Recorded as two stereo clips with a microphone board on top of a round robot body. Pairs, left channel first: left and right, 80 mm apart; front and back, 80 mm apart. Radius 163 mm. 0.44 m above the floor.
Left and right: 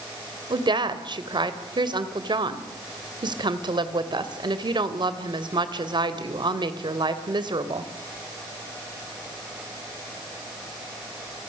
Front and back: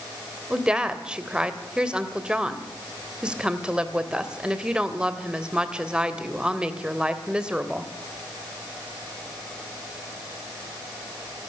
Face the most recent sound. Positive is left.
turn(degrees=-100)